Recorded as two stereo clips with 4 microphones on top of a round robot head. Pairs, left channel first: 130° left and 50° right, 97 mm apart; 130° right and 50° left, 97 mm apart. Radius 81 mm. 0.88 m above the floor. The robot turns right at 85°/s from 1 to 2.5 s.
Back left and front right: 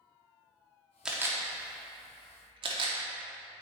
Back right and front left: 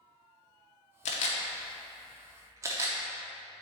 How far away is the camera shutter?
About 0.7 m.